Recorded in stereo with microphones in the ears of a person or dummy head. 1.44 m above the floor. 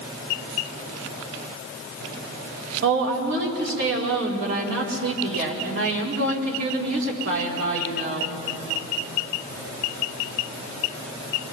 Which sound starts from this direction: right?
A woman speaking, at 2.8 s.